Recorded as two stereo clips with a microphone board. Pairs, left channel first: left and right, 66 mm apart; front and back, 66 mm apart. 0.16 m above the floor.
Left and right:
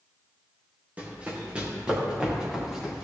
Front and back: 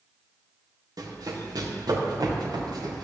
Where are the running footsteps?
160° right, 3 m; by 3.1 s 175° right, 4 m.